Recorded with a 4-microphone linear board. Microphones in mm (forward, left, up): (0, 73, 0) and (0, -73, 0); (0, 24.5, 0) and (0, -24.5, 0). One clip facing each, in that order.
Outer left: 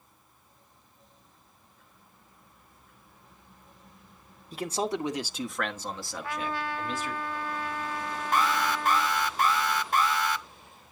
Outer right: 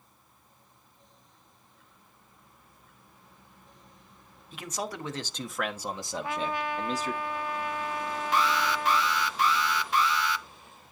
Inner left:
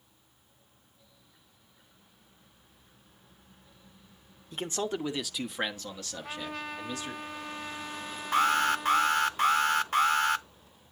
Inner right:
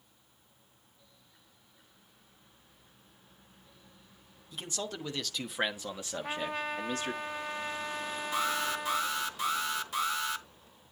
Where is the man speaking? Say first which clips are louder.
Outer left 6 dB, inner left 7 dB; 40° left (ahead or behind), 1.1 m; by 7.1 s 40° right (ahead or behind), 1.8 m.